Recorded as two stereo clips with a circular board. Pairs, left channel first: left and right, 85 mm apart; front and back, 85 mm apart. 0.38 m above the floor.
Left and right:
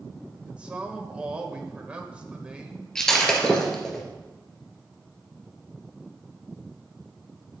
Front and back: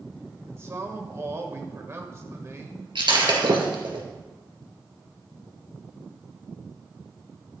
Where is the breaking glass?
170° left, 3 m.